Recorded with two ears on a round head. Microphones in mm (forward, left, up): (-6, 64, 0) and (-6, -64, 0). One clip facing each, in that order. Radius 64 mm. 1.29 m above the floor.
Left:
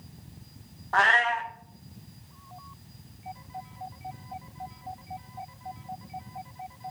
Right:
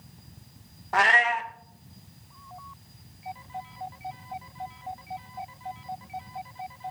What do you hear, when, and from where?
0.9 s a cat meowing: 15° right (ahead or behind), 0.6 m